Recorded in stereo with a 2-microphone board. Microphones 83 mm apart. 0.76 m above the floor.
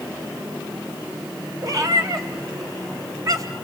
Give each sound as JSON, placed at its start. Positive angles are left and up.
{"t": 1.6, "sound": "a cat meowing", "side_deg": -45, "distance_m": 2.0}